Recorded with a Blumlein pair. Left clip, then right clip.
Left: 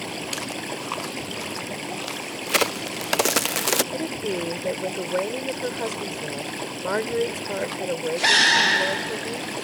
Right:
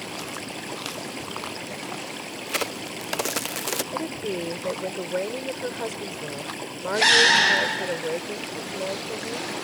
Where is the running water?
10° left.